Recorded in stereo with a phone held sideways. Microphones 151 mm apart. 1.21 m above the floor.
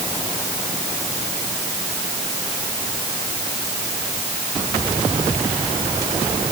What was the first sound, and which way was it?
Only background noise.